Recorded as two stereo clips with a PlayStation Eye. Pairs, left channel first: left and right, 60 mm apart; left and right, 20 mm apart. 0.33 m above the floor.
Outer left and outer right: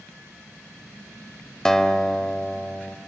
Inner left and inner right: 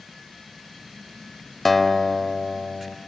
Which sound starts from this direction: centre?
A guitar, at 1.6 s.